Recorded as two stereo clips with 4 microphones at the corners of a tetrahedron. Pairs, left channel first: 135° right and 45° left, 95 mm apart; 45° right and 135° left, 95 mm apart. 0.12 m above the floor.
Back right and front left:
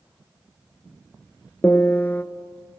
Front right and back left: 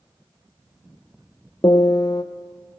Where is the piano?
65° right, 0.5 m.